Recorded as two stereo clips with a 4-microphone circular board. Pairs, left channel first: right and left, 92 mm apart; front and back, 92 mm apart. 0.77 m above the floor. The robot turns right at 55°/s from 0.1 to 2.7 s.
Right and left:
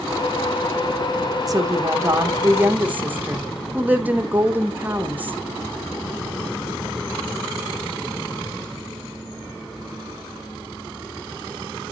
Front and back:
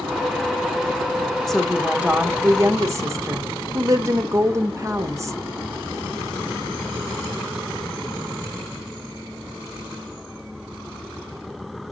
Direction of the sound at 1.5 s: 85° left.